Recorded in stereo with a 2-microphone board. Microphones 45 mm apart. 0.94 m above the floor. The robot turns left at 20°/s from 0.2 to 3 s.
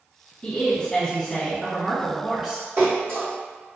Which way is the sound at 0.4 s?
40° left.